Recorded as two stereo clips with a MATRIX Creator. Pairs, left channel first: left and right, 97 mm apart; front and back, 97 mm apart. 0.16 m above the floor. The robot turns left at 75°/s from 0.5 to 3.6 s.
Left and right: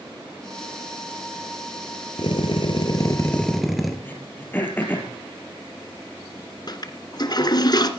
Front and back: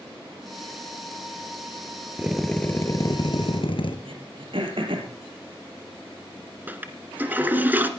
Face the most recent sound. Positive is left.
turn(degrees=115)